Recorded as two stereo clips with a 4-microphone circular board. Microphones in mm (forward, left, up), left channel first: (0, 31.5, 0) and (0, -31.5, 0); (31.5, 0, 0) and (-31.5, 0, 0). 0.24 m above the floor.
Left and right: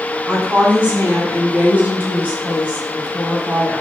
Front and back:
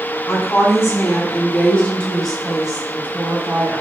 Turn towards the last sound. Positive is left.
turn(degrees=-150)